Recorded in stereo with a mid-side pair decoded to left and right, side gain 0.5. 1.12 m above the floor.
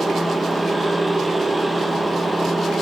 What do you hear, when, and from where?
0.0 s a machine running: 15° right, 1.1 m